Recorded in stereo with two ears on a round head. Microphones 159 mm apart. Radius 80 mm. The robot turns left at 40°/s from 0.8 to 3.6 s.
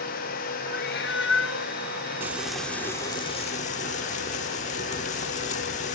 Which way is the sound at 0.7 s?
120° left.